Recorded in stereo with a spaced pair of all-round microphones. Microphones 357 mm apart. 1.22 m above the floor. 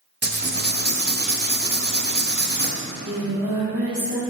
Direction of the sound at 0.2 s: 30° right (ahead or behind).